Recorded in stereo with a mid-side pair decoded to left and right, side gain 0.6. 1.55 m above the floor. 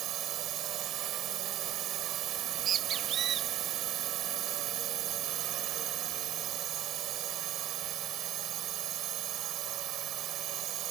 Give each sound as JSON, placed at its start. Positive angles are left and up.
{"t": 0.0, "sound": "a drone", "azimuth_deg": -55}
{"t": 2.4, "sound": "a bird", "azimuth_deg": -45}